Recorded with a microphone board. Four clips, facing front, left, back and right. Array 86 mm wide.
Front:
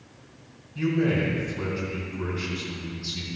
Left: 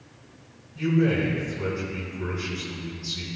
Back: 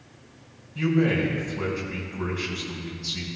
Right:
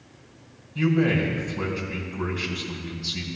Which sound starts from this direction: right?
A man speaking, at 0.8 s.